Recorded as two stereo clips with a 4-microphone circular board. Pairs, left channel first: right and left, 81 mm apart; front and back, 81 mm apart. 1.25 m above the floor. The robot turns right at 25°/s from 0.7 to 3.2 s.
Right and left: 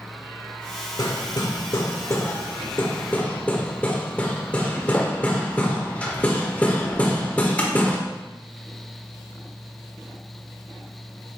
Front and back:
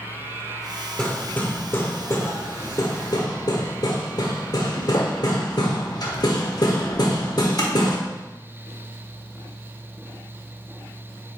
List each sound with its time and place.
1.0 s hammering: 75° right, 1.4 m; by 8.0 s 20° right, 1.4 m